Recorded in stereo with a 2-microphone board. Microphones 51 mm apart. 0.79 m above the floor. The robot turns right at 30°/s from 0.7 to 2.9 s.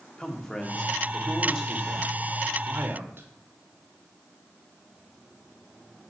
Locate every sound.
0.2 s a man speaking: 170° left, 1.5 m; by 3.3 s 125° right, 1.5 m